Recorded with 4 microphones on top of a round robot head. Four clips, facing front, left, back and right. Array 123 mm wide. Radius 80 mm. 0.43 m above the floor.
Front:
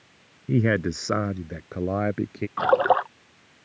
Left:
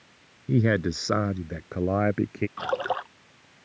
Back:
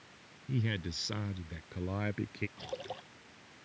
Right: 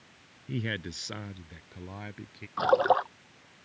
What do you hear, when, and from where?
0.5 s a man speaking: 35° left; by 2.5 s 55° left
2.6 s a splash: 20° right